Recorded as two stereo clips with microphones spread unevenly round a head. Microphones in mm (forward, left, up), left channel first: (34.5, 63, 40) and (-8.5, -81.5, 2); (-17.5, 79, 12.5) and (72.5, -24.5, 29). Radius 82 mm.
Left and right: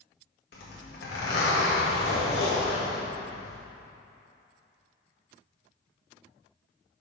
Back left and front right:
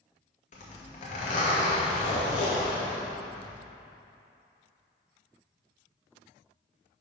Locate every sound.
0.5 s a zipper: 95° left, 2.0 m